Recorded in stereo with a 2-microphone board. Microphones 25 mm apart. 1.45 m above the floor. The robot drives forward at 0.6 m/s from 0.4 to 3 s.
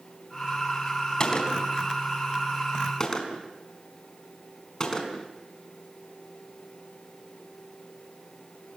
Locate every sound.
1.2 s a gunshot: 30° left (ahead or behind), 4 m; by 5.3 s 25° left (ahead or behind), 5 m